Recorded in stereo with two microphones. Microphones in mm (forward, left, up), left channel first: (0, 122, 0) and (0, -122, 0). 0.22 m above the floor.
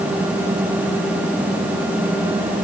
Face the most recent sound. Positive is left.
No sound to turn to.